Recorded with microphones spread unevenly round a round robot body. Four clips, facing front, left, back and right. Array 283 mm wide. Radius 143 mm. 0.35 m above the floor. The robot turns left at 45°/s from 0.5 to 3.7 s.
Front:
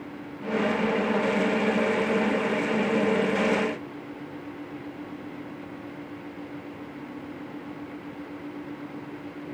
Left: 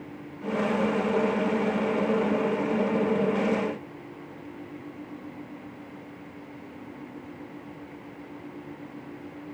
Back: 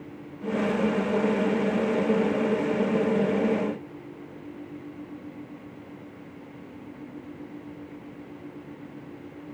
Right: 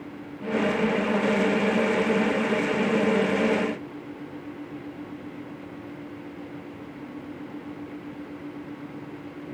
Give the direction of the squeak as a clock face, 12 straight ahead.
I don't hear a squeak.